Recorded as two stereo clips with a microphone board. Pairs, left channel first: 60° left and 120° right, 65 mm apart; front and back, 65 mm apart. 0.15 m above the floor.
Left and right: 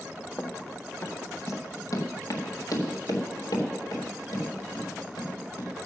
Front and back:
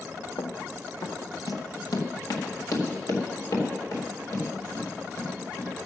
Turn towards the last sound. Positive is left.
turn(degrees=35)